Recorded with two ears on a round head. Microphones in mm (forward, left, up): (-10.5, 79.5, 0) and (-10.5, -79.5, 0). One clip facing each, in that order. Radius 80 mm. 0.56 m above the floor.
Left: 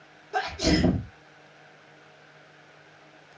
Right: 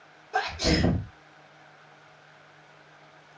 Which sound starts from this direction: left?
A sneeze, at 0.3 s.